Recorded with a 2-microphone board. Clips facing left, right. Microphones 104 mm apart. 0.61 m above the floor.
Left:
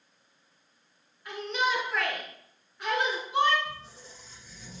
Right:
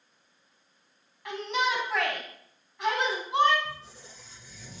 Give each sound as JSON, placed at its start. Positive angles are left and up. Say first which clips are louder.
{"t": 1.2, "sound": "a shout", "louder": "right 1 dB", "side_deg": -80, "distance_m": 3.5}
{"t": 3.6, "sound": "a squeak", "louder": "even", "side_deg": -65, "distance_m": 4.0}